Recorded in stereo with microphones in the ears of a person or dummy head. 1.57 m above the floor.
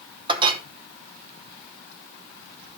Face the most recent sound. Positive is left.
turn(degrees=-30)  # may be behind; listen again after turning